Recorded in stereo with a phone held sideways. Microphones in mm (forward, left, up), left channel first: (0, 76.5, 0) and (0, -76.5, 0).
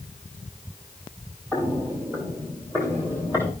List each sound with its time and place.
1.5 s footsteps: 20° right (ahead or behind), 2.5 m; by 3.5 s 15° right (ahead or behind), 3.5 m